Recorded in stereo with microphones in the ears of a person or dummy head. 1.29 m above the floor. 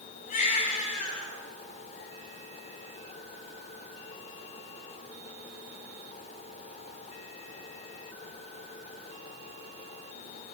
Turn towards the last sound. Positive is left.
turn(degrees=40)  # may be behind; listen again after turning